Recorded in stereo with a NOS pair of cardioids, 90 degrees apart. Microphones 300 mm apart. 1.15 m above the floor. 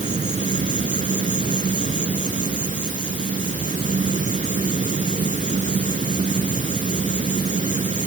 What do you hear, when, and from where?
0.0 s an insect: 25° right